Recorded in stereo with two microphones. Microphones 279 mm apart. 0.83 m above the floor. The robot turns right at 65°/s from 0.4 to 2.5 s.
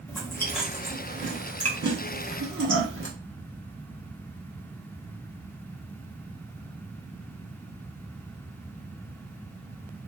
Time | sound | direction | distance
0.1 | chewing | 10° left (ahead or behind) | 1.1 m